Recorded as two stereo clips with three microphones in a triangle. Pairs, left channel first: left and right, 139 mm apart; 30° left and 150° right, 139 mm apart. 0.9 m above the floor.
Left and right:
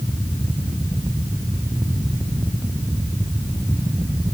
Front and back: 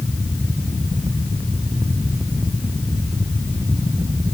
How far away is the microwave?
No microwave in this recording.